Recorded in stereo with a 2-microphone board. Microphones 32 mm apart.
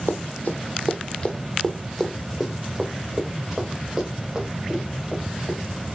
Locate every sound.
0.1 s running footsteps: 70° left (ahead or behind), 1.1 m; by 5.6 s 25° right (ahead or behind), 3.5 m